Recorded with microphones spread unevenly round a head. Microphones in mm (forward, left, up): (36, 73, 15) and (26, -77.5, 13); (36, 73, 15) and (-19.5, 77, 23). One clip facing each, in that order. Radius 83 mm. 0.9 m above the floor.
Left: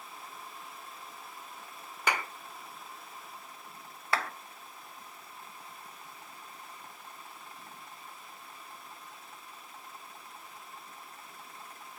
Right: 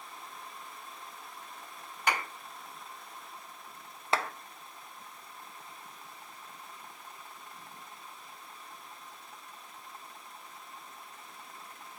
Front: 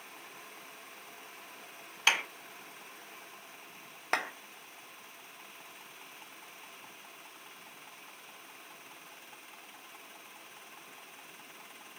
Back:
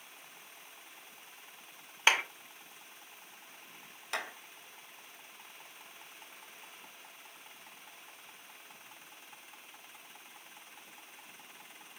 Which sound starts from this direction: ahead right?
A clap, at 4.1 s.